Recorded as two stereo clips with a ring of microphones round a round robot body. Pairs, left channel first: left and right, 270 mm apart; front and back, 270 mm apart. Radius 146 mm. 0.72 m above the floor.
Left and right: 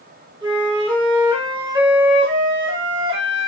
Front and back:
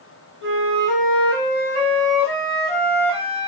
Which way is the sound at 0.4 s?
15° right.